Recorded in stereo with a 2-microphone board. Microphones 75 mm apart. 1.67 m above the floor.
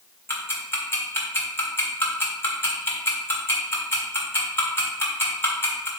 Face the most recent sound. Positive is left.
turn(degrees=35)  # may be behind; listen again after turning